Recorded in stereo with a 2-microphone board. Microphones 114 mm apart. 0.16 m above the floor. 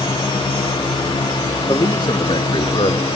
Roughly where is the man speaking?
Left.